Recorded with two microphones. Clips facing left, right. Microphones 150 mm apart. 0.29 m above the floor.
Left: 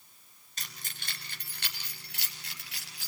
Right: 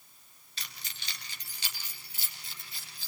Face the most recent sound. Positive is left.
turn(degrees=75)  # may be behind; listen again after turning